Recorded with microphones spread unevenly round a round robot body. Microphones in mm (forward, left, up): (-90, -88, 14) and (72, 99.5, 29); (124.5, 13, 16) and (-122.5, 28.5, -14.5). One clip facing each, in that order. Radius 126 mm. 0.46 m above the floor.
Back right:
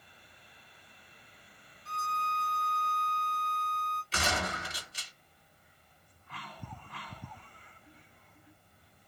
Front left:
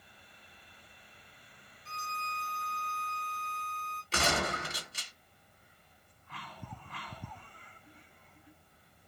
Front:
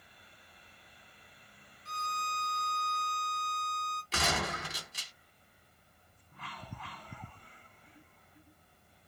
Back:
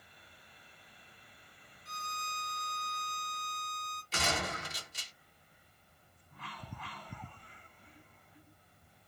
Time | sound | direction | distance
1.9 | a violin | 10° right | 2.5 m
4.1 | a gunshot | 15° left | 2 m